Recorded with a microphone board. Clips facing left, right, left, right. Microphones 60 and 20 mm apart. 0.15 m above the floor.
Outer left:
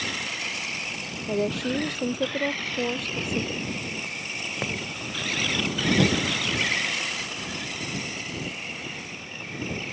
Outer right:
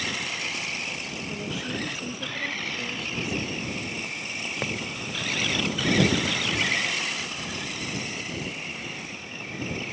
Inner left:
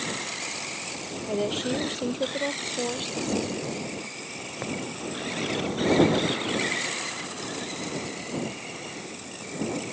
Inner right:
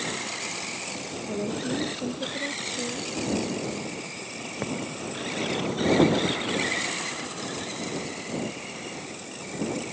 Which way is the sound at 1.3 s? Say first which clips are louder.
Outer left 9 dB, inner left 3 dB; 60° left (ahead or behind).